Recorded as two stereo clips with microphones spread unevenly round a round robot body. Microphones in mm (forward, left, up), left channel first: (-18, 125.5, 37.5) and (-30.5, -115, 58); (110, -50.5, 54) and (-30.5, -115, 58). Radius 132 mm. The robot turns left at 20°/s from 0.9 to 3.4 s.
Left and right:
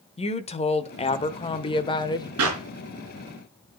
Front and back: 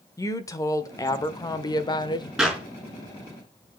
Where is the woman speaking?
65° left, 0.9 m; by 2.3 s 40° left, 0.9 m.